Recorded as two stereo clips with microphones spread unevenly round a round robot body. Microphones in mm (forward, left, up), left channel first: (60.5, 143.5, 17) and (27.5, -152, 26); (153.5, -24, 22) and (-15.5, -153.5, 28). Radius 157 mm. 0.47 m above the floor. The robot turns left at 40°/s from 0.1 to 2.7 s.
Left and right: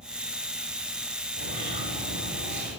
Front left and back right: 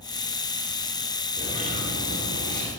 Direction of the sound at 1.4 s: 80° right.